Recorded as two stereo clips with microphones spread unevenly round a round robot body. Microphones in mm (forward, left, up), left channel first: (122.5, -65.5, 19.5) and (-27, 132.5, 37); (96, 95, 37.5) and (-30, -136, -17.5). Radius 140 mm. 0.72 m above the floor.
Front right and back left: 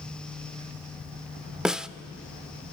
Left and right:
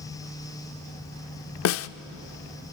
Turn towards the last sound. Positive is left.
turn(degrees=40)